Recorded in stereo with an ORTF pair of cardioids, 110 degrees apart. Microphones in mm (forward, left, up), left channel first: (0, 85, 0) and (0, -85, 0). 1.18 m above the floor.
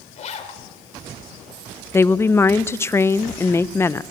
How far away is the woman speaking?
About 0.5 m.